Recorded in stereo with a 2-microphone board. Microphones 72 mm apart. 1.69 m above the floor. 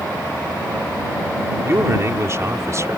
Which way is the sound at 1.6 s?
35° right (ahead or behind).